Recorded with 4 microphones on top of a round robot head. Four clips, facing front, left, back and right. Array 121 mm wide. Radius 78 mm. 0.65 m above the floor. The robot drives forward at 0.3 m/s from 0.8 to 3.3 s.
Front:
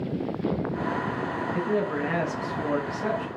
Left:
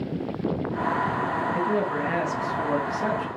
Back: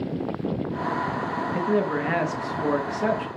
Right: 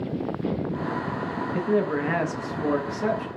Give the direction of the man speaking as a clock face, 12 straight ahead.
5 o'clock.